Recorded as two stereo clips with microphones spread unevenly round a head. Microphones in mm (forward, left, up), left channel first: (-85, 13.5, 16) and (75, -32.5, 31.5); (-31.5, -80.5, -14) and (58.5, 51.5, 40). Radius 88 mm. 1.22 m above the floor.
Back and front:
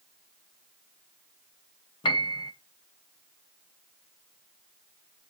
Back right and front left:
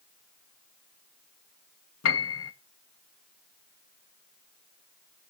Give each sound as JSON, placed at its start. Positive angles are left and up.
{"t": 2.0, "sound": "a piano", "azimuth_deg": -130, "distance_m": 1.1}